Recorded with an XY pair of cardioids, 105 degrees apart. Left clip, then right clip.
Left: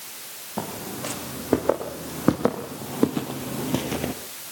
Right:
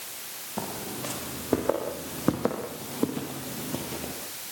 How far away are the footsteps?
About 6 m.